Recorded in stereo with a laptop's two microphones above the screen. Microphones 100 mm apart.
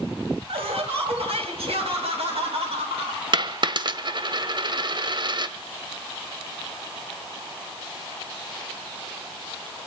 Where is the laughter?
70° right (ahead or behind), 5.5 m; by 3.2 s 85° right, 6.5 m.